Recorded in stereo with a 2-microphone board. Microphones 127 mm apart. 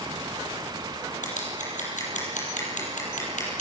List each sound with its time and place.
1.2 s scissors: 75° left (ahead or behind), 6.5 m